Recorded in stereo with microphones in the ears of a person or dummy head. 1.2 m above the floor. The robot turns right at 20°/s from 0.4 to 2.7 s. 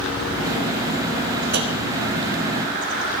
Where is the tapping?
55° right (ahead or behind), 2.5 m.